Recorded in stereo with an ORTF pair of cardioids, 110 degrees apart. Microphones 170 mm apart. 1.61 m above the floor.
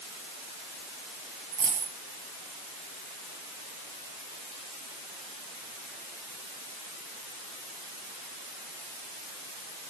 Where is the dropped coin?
65° right, 6 m.